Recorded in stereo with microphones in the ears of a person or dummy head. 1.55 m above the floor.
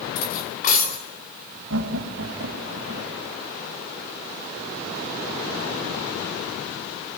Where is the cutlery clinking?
55° left (ahead or behind), 3.5 m.